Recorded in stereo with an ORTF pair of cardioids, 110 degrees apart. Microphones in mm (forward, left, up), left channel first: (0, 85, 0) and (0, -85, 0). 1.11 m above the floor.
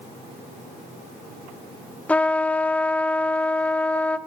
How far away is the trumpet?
About 0.5 m.